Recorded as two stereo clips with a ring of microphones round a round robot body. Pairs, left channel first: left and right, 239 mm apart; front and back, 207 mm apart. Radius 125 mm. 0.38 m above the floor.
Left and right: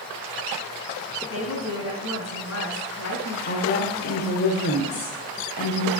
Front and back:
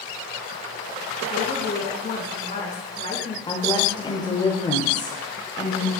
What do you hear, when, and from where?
1.3 s a woman speaking: 55° left, 3.5 m
3.5 s a woman speaking: 60° left, 1.3 m